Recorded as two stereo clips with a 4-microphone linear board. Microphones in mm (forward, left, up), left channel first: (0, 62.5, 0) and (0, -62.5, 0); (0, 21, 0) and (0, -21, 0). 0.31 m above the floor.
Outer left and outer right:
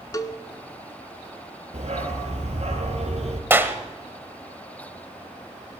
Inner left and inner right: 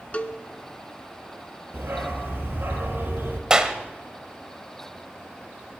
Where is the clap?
20° right (ahead or behind), 1.2 m.